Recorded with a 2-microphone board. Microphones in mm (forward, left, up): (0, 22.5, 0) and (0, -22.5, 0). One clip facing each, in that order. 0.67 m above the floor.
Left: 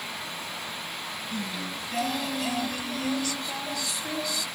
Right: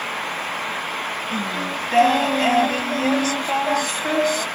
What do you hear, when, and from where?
1.3 s singing: 60° right (ahead or behind)